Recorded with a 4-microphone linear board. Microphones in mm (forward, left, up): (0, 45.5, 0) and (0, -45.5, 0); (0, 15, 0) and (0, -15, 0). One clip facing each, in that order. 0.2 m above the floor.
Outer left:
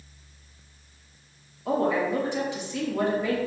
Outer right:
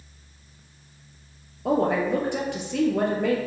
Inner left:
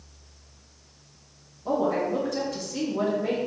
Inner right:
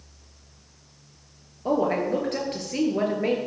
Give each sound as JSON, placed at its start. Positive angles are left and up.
{"t": 1.6, "sound": "a woman speaking", "side_deg": -60, "distance_m": 3.5}